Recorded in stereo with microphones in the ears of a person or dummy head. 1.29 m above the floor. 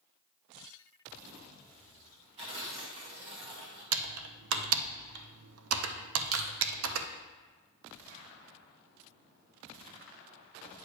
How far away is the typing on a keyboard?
About 0.6 m.